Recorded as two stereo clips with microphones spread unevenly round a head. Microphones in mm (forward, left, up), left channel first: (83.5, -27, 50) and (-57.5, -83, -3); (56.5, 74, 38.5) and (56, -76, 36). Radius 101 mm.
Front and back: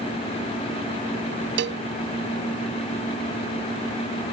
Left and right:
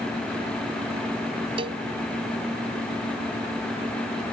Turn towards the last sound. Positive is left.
turn(degrees=-155)